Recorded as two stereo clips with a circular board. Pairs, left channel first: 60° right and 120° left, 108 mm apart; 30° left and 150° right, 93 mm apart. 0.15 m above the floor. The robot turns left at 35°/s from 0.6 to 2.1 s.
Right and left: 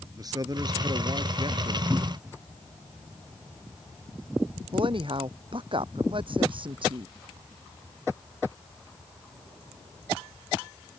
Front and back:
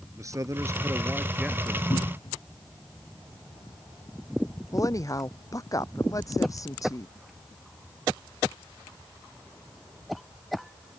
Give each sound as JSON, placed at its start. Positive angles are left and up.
{"t": 0.2, "sound": "a man speaking", "azimuth_deg": 165}
{"t": 1.9, "sound": "a cupboard door", "azimuth_deg": 45}
{"t": 4.7, "sound": "a woman speaking", "azimuth_deg": 80}